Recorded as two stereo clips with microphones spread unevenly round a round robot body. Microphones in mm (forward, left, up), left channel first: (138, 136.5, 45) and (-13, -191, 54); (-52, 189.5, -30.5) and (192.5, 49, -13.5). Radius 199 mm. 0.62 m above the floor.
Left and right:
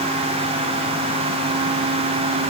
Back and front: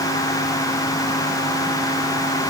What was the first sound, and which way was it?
Only background noise.